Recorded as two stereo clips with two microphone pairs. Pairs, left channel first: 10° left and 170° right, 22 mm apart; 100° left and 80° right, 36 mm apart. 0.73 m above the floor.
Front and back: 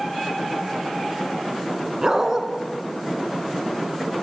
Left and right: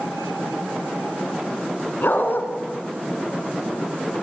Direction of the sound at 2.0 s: 125° left.